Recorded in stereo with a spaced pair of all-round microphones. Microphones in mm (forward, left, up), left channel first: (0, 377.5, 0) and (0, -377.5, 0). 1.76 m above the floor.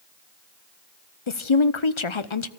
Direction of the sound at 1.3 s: 40° left (ahead or behind).